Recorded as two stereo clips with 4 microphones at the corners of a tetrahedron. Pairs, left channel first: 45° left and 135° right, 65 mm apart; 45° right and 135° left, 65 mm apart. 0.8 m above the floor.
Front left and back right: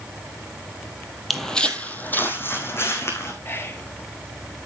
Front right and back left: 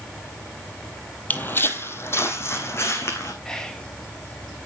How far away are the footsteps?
About 0.8 m.